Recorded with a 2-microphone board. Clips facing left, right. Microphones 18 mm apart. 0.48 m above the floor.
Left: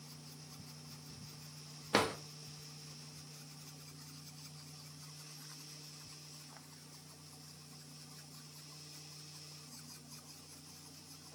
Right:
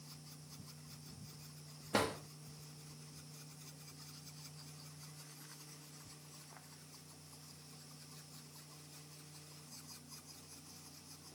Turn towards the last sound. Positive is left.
turn(degrees=40)  # may be behind; listen again after turning